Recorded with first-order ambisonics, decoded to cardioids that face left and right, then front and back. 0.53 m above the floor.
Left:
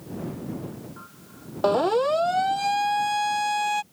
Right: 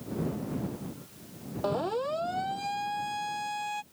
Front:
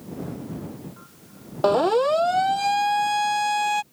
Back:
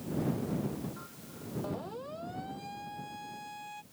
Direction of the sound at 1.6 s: 30° left.